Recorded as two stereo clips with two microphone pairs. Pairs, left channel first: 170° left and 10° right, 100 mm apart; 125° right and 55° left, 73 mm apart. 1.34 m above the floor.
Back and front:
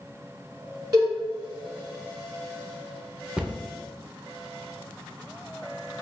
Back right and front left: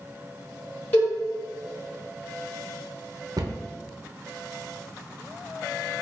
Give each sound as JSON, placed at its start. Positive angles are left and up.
{"t": 0.9, "sound": "a cowbell", "azimuth_deg": -65, "distance_m": 1.4}
{"t": 3.4, "sound": "a cupboard door", "azimuth_deg": 75, "distance_m": 0.7}